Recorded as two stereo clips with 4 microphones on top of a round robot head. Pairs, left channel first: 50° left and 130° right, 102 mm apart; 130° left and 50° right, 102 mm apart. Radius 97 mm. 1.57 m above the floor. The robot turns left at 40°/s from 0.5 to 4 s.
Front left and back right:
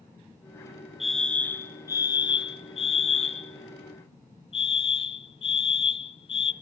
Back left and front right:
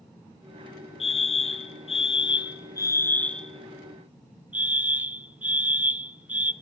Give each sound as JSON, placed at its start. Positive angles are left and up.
{"t": 1.0, "sound": "a fire alarm", "azimuth_deg": 145, "distance_m": 0.9}